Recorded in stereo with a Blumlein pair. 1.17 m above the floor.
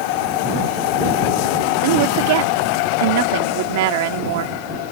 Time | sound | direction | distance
1.8 | a woman speaking | 50° right | ?